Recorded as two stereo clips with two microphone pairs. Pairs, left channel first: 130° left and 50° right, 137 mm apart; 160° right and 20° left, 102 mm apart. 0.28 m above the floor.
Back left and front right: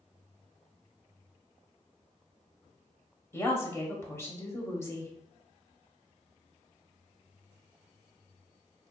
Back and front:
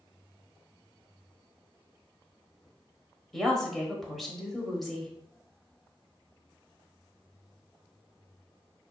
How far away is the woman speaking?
About 0.9 m.